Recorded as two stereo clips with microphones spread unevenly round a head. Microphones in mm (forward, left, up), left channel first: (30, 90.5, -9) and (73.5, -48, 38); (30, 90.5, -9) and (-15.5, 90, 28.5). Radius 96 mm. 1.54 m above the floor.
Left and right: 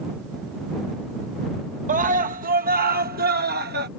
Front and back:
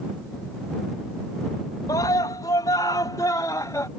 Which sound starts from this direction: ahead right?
A scream, at 1.9 s.